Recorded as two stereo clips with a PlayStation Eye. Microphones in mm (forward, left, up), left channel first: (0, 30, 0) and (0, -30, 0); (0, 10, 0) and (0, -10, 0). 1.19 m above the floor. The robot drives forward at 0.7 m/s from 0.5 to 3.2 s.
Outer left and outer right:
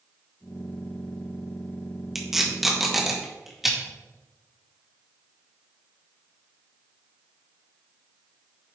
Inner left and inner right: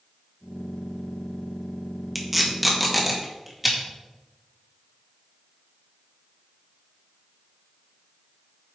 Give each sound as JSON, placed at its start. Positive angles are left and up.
{"t": 2.1, "sound": "tape being pulled", "side_deg": -5, "distance_m": 1.7}